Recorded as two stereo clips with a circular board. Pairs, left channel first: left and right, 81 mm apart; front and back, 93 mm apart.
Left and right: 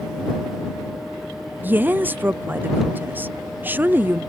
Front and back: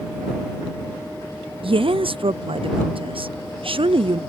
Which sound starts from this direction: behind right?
A woman speaking, at 1.6 s.